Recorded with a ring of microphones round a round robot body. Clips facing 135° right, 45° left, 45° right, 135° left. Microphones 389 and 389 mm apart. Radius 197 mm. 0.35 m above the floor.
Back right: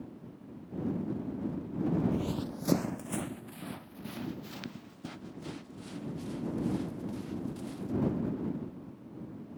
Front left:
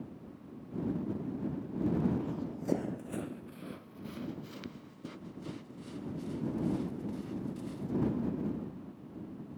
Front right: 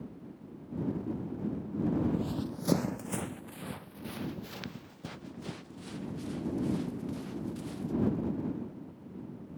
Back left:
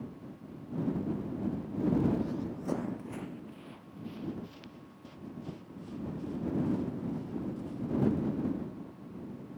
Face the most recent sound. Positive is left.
turn(degrees=-55)